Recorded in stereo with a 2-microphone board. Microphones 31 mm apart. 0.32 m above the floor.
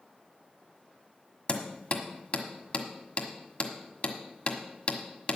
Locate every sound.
1.5 s hammering: 45° left (ahead or behind), 1.4 m